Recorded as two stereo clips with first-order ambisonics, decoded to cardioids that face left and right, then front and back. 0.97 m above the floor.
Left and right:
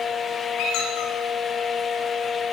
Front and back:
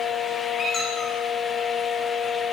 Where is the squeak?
70° left, 9 m.